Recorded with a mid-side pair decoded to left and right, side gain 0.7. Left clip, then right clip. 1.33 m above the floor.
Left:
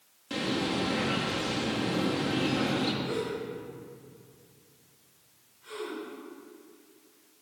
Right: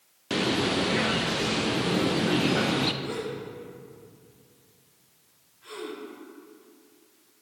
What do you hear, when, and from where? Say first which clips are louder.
0.3 s a bird: right 5 dB; 40° right, 0.5 m
3.0 s a gasp: left 1 dB; 70° right, 2.5 m